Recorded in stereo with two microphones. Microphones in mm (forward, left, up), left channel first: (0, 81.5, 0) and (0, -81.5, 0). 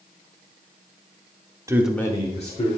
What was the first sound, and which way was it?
A man speaking, 20° right (ahead or behind).